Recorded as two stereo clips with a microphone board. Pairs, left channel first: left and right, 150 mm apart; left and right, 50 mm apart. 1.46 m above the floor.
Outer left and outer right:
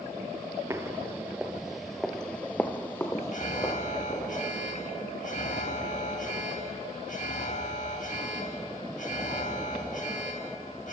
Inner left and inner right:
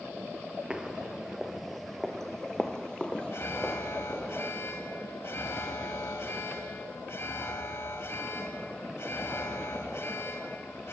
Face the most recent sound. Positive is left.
turn(degrees=55)  # may be behind; listen again after turning